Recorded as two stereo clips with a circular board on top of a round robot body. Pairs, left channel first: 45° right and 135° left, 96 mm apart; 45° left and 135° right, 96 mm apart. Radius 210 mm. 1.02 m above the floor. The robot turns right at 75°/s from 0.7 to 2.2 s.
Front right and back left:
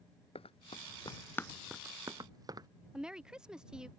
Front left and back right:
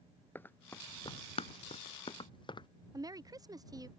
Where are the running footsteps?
25° right; by 2.7 s 85° left.